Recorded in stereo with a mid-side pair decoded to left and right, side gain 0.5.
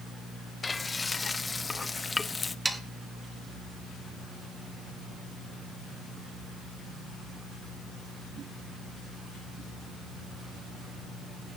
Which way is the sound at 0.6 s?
20° left.